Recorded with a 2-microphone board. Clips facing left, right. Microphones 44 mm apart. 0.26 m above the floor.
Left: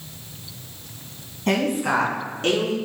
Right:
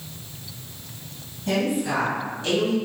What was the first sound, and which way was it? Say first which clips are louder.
A woman speaking: left 2 dB; 55° left (ahead or behind).